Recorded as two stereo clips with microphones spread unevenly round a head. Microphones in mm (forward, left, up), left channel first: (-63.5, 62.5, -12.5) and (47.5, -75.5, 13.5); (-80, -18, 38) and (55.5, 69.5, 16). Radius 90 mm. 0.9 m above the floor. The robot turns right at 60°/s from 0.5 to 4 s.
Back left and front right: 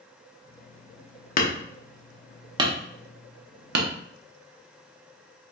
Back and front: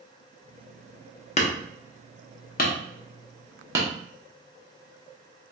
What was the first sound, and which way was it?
Hammering, 175° left.